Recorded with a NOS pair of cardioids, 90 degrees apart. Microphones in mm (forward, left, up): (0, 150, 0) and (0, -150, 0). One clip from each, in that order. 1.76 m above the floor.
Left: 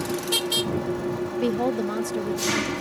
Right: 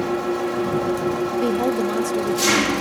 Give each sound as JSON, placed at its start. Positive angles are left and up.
{"t": 0.0, "sound": "an engine running", "azimuth_deg": -55}
{"t": 1.4, "sound": "a woman speaking", "azimuth_deg": -20}